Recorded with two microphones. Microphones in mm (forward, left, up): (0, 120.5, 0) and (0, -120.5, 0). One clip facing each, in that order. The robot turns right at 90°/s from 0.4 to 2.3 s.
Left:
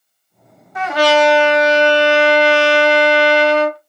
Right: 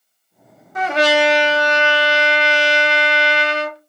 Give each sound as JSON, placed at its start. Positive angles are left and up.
{"t": 0.8, "sound": "a trumpet", "azimuth_deg": -50, "distance_m": 0.8}